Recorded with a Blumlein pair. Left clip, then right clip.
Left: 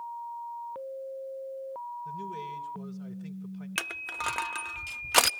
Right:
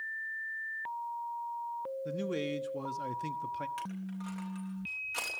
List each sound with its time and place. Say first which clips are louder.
2.0 s a man speaking: right 2 dB; 55° right, 1.3 m
3.8 s crushing: left 10 dB; 40° left, 0.5 m